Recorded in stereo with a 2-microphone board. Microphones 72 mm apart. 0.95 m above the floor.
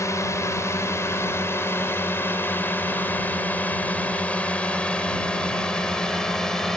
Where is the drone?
45° left (ahead or behind); by 6.8 s 5° left (ahead or behind).